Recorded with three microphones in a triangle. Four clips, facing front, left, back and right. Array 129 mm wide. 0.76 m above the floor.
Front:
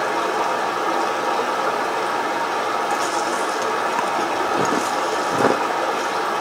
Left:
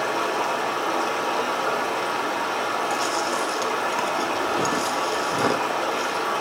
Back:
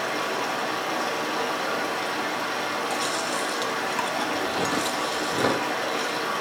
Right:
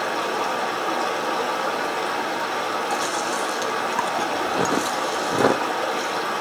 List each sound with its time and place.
0.0 s running water: straight ahead, 1.8 m
2.9 s chewing: 45° right, 0.6 m